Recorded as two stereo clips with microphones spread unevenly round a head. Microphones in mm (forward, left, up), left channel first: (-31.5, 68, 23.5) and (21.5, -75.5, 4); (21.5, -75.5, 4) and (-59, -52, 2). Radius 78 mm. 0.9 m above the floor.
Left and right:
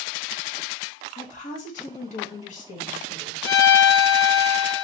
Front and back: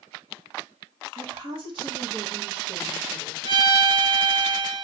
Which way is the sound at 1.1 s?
150° left.